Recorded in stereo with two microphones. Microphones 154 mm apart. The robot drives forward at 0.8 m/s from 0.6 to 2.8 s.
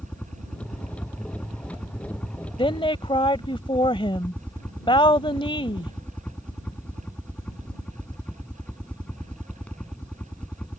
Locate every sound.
0.0 s a helicopter: 5° left (ahead or behind); by 10.8 s 10° left (ahead or behind)
2.6 s a woman speaking: 35° left (ahead or behind)